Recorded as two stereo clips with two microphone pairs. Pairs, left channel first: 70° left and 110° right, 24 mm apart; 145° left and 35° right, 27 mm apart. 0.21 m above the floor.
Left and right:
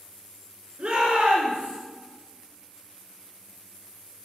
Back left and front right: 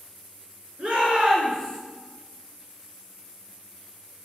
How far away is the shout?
About 3 m.